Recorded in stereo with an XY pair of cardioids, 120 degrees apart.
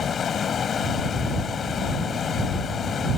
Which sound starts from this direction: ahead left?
Running water, at 0.0 s.